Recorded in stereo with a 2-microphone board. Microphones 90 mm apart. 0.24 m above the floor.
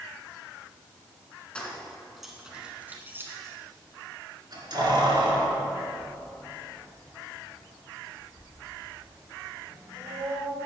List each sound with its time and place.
1.6 s keys jangling: 15° left (ahead or behind), 1.5 m; by 10.7 s 85° right, 5 m